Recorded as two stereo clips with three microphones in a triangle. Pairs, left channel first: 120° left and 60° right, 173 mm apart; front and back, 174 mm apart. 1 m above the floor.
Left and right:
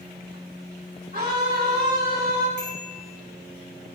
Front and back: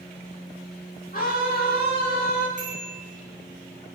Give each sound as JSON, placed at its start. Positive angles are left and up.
{"t": 1.1, "sound": "a scream", "azimuth_deg": -35, "distance_m": 6.5}
{"t": 2.6, "sound": "a bicycle bell", "azimuth_deg": 135, "distance_m": 7.0}